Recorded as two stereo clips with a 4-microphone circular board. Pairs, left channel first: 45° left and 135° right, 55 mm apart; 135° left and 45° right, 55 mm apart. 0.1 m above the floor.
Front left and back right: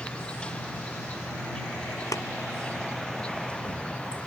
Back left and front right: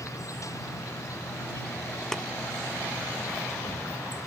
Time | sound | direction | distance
0.0 | an insect | 120° left | ?
2.1 | tapping | 50° left | ?